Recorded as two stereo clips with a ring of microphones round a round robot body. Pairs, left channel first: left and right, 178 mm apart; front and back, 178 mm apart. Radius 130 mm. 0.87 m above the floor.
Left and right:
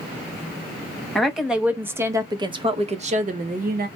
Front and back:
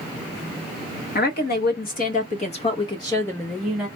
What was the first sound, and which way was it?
A woman speaking, straight ahead.